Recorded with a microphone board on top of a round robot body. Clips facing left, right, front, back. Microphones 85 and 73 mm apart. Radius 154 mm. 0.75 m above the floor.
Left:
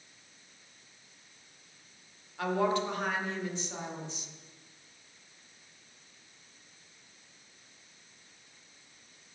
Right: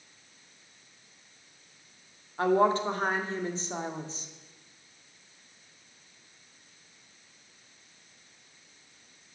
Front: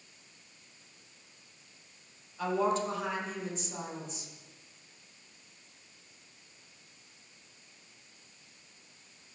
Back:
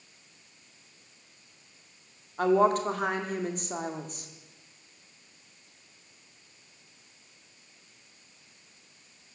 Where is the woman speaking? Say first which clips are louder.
Right 5 dB, back 7 dB; 145° right, 2.0 m.